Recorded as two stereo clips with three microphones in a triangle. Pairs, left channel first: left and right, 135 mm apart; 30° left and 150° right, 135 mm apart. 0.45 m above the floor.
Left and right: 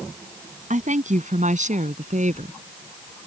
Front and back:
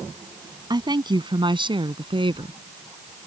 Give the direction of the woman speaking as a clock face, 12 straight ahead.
3 o'clock.